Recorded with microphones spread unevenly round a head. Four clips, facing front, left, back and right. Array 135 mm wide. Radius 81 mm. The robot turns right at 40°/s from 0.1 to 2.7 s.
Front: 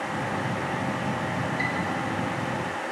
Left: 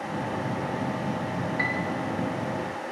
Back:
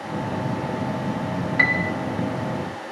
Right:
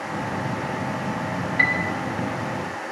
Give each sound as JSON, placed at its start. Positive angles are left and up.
{"t": 1.6, "sound": "a piano", "azimuth_deg": -135, "distance_m": 0.6}